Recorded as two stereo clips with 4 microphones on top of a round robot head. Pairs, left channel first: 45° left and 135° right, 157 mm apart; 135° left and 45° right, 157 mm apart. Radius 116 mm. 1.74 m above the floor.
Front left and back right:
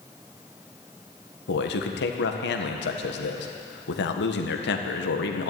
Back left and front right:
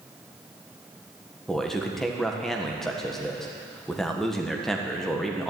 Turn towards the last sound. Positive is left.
turn(degrees=45)